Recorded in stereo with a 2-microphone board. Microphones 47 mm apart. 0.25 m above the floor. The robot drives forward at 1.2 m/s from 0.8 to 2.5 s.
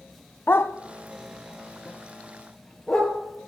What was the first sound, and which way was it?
A dog barking, 55° left (ahead or behind).